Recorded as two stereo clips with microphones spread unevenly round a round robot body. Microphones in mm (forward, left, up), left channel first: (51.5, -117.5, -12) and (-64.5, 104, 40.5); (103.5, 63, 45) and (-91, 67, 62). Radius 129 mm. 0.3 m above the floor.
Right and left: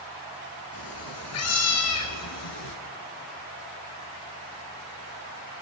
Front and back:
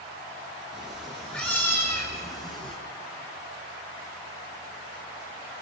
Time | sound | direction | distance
0.7 | a cat meowing | 95° right | 3.5 m